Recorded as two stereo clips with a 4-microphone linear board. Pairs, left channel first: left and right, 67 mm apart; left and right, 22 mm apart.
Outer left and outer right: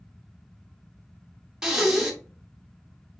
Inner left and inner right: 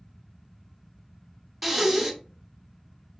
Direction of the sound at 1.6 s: 10° right (ahead or behind).